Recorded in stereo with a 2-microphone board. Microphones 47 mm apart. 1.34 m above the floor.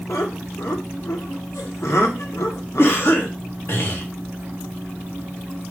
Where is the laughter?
80° left, 1.3 m.